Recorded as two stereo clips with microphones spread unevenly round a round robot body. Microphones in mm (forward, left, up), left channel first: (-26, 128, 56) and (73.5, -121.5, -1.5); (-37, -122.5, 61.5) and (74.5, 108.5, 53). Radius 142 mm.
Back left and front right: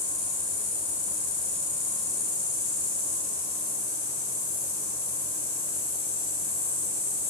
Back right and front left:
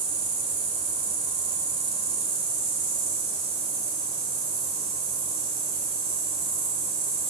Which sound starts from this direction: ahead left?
An insect, at 0.0 s.